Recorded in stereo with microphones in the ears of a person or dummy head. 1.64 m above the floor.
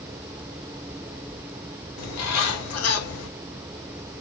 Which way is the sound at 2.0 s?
85° left.